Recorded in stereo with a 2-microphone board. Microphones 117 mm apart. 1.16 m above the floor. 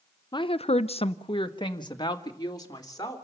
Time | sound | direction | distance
0.3 | a woman speaking | 40° left (ahead or behind) | 0.6 m